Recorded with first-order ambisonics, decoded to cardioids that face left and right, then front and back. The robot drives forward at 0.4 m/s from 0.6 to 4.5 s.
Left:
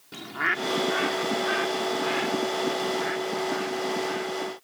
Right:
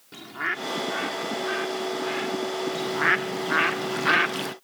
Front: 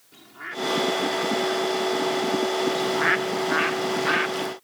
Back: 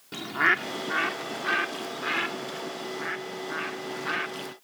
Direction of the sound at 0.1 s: 170° left.